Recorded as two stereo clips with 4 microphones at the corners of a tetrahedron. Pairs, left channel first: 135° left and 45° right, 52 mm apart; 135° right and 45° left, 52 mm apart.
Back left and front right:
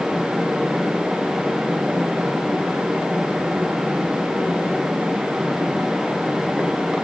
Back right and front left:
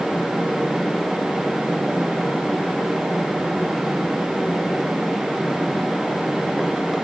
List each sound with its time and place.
Only background noise.